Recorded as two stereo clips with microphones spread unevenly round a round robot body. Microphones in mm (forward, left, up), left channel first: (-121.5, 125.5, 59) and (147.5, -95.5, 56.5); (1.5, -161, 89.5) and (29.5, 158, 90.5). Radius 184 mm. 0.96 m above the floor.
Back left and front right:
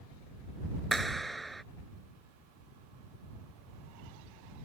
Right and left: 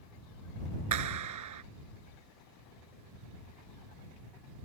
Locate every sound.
0.9 s a clap: 50° left